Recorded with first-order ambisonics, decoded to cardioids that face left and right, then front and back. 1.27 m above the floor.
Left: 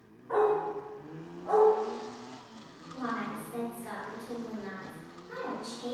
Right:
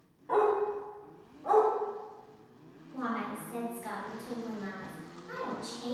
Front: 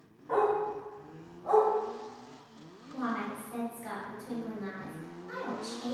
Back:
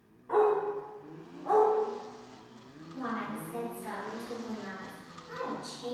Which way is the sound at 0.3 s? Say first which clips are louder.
Even, back 2 dB; 70° right.